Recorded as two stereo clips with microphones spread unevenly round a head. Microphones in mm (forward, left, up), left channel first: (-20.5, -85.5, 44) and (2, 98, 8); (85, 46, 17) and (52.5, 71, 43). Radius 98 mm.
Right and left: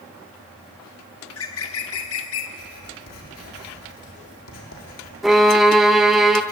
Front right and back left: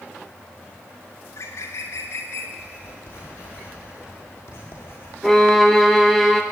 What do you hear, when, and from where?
1.2 s a bird: 100° right, 1.6 m
2.6 s writing: 90° right, 4.5 m
5.2 s a violin: 175° right, 1.0 m